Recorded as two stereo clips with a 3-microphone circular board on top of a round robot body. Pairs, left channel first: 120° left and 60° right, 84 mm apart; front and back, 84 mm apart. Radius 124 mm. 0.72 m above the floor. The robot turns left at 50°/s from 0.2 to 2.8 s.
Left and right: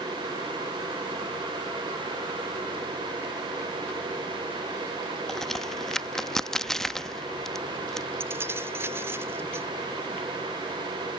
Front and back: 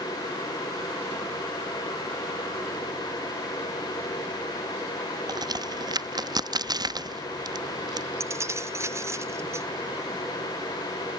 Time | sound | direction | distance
5.3 | a crack | 155° right | ?
8.2 | keys jangling | 125° right | ?